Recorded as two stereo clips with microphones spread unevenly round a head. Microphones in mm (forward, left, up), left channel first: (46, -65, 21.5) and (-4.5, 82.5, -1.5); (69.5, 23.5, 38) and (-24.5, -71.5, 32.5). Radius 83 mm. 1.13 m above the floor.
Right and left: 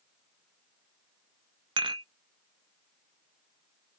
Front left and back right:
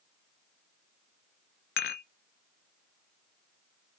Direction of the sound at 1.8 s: 45° left.